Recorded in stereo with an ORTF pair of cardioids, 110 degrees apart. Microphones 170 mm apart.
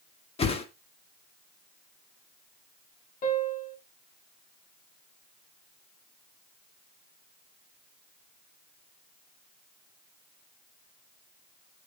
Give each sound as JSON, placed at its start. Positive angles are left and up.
{"t": 0.4, "sound": "a whoosh", "azimuth_deg": 35, "distance_m": 1.9}
{"t": 3.2, "sound": "a piano", "azimuth_deg": 60, "distance_m": 3.5}